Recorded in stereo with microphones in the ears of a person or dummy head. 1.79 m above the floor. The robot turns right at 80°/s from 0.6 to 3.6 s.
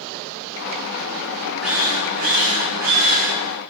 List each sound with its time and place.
1.6 s a drill: straight behind, 6.5 m; by 3.3 s 45° right, 6.5 m